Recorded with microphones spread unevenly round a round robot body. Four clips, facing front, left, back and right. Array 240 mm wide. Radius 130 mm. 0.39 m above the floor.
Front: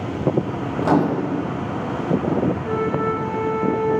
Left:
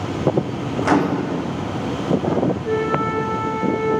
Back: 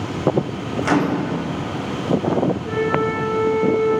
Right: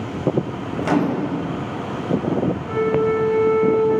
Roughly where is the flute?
Left.